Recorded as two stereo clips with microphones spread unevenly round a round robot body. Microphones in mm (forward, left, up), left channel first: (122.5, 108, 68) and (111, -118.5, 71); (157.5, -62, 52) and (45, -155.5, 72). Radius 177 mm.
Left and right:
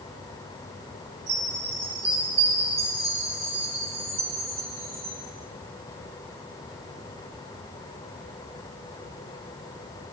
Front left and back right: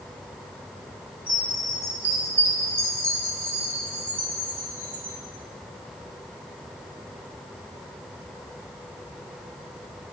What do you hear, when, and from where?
1.3 s a chime: 65° right, 3.5 m